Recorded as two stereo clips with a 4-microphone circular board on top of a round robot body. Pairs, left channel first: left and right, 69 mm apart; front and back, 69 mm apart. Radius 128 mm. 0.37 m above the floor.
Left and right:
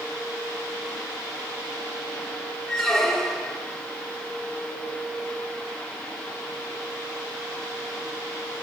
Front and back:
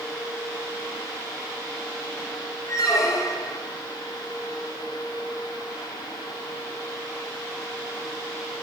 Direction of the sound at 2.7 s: 10° left.